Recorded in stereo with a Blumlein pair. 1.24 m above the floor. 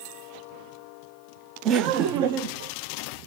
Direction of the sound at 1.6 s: 30° right.